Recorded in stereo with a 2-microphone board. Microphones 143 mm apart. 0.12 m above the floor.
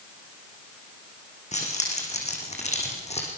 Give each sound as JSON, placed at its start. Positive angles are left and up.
{"t": 1.5, "sound": "keys jangling", "side_deg": 55, "distance_m": 6.0}